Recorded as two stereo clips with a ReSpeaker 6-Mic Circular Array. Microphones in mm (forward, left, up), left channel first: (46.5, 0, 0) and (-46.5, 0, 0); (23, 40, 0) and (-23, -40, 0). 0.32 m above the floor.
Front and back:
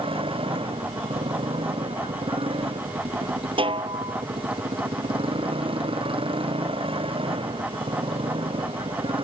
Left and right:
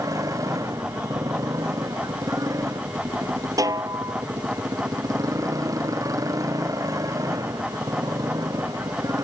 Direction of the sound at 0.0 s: 170° right.